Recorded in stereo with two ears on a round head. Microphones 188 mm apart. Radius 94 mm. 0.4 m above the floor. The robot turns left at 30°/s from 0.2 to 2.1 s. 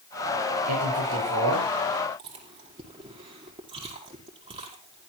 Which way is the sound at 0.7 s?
90° right.